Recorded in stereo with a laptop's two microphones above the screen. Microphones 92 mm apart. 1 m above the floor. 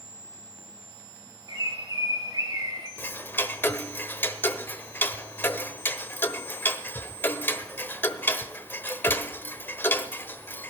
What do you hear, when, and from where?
1.5 s a bird: 45° right (ahead or behind), 3 m
3.0 s ticking: 20° left (ahead or behind), 1.0 m